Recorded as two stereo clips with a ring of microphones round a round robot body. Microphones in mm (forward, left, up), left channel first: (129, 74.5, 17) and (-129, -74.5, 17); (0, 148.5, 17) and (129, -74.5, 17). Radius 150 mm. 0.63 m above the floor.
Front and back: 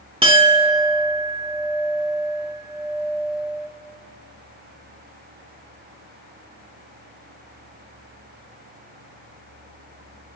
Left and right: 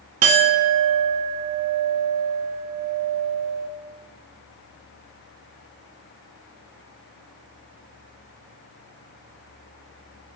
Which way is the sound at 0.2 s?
80° right.